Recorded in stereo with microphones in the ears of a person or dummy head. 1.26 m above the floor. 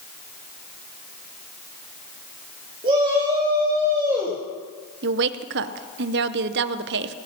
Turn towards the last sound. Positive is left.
turn(degrees=-55)  # may be behind; listen again after turning